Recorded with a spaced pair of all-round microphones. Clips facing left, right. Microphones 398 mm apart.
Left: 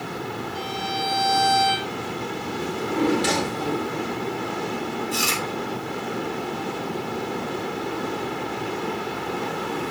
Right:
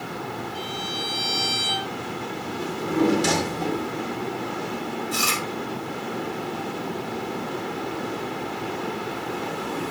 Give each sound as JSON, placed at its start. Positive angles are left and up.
{"t": 0.5, "sound": "a violin", "side_deg": -35, "distance_m": 7.0}
{"t": 2.6, "sound": "a drawer", "side_deg": -60, "distance_m": 2.5}
{"t": 5.1, "sound": "chewing", "side_deg": -15, "distance_m": 2.5}